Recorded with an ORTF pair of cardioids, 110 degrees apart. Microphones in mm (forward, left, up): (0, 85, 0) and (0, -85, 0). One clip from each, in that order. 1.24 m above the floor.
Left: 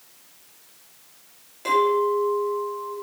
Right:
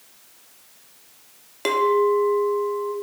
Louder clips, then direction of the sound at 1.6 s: Right 1 dB; 60° right.